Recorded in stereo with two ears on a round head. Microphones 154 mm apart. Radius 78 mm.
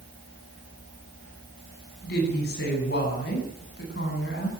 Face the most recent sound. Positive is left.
turn(degrees=70)  # may be behind; listen again after turning